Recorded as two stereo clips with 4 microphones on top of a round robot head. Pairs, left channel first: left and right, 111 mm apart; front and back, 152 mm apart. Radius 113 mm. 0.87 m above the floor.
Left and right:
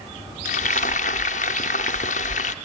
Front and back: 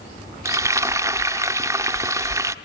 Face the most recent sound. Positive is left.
turn(degrees=115)